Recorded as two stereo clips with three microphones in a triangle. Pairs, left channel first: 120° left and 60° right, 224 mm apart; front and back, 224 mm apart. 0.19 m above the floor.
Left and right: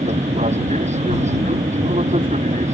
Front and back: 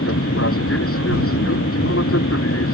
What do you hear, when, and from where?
0.0 s an aircraft: straight ahead